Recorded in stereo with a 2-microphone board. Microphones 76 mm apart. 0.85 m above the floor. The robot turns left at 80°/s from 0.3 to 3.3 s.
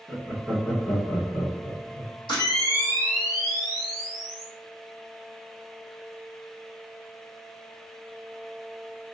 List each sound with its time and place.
0.1 s laughter: centre (ahead or behind), 0.9 m; by 2.1 s 20° left (ahead or behind), 0.9 m
2.3 s a camera shutter: 75° left, 1.2 m; by 4.5 s 5° right, 1.2 m